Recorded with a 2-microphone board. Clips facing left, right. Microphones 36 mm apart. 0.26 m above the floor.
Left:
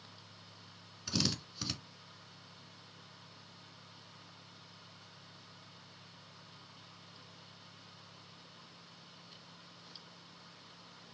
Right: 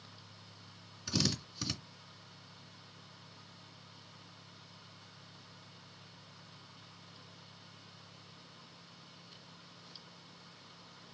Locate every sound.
1.1 s a drill: centre (ahead or behind), 2 m